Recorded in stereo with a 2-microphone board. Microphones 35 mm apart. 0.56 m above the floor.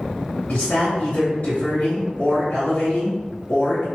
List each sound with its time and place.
0.5 s a woman speaking: 50° left (ahead or behind), 1.8 m